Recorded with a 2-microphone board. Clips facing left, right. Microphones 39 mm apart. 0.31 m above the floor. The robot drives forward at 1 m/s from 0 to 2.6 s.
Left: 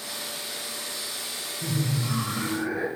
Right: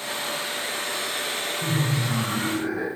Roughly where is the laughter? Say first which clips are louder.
Right 1 dB; centre.